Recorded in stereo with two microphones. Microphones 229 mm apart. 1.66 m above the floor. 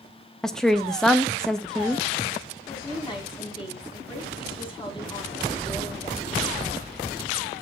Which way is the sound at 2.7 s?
20° left (ahead or behind).